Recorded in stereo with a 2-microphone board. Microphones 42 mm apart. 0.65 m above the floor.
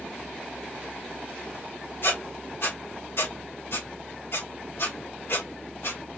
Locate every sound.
2.0 s a squeak: 60° left (ahead or behind), 1.2 m